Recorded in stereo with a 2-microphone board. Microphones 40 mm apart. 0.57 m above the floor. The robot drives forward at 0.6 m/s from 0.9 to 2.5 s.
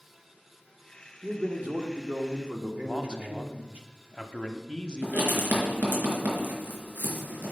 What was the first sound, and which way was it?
A man speaking, 35° right (ahead or behind).